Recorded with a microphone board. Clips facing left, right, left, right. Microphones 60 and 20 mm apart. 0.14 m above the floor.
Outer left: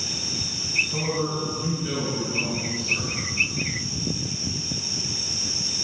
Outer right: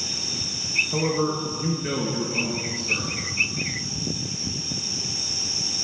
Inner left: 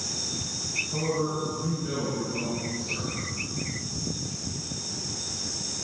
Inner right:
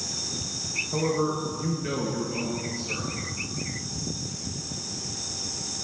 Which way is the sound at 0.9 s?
45° right (ahead or behind).